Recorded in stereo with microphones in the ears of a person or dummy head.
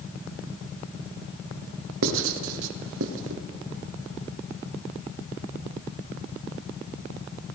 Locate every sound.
2.0 s writing: 70° right (ahead or behind), 0.9 m